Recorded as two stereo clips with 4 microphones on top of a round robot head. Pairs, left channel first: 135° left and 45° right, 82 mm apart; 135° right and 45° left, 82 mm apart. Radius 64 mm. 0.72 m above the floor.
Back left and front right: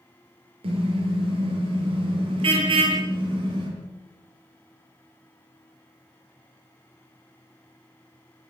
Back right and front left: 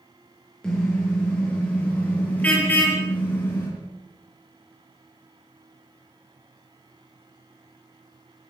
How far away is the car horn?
About 7 m.